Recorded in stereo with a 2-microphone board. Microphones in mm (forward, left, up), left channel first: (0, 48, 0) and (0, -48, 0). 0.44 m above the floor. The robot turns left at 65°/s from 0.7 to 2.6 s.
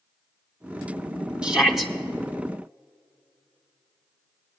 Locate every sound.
1.4 s a shout: 10° right (ahead or behind), 0.8 m; by 1.9 s centre (ahead or behind), 0.8 m